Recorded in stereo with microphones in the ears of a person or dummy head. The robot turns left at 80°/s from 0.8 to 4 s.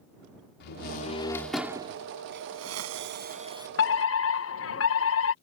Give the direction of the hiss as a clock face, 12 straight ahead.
2 o'clock.